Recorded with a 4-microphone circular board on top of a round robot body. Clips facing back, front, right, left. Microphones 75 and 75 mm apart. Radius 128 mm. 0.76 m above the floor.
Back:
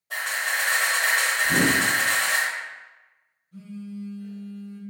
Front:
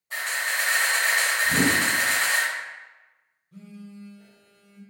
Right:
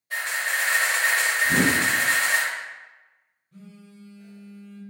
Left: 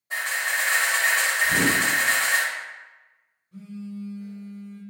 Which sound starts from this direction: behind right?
A whoosh, at 1.4 s.